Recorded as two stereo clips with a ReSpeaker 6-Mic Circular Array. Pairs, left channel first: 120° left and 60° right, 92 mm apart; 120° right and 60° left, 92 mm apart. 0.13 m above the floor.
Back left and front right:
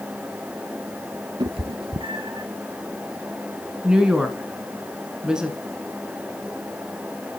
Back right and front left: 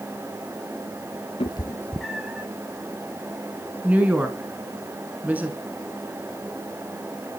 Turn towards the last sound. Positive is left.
turn(degrees=10)